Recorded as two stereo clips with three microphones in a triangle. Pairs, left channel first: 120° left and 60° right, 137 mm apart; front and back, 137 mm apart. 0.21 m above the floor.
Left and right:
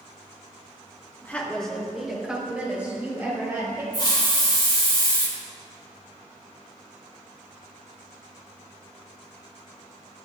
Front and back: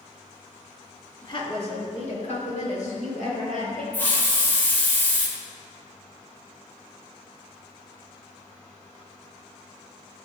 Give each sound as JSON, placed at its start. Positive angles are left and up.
{"t": 1.2, "sound": "a woman speaking", "azimuth_deg": 45, "distance_m": 2.5}
{"t": 3.9, "sound": "a hiss", "azimuth_deg": 75, "distance_m": 3.0}